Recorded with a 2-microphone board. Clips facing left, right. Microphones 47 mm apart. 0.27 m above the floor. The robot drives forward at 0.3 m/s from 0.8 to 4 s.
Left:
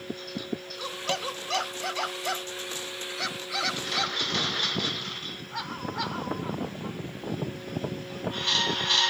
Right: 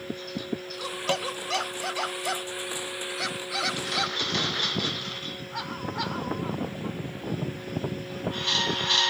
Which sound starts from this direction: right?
Tapping, at 1.1 s.